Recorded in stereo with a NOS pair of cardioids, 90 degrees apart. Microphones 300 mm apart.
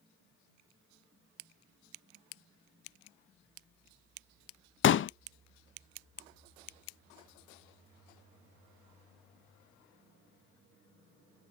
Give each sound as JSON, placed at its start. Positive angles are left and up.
{"t": 4.8, "sound": "a pop", "azimuth_deg": 40, "distance_m": 0.5}